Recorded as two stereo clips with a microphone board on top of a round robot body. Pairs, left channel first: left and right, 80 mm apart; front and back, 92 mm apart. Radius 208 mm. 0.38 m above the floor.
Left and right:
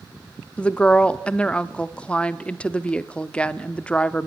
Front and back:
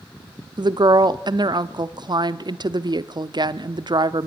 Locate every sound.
0.6 s a woman speaking: 165° left, 1.1 m